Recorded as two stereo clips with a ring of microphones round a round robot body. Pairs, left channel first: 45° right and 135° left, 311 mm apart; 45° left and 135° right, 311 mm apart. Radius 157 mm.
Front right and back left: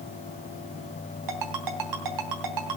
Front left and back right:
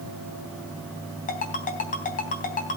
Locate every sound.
1.3 s a ringtone: 110° left, 3 m